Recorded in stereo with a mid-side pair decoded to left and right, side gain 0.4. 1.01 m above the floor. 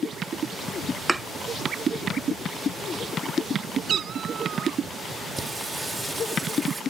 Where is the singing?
20° right.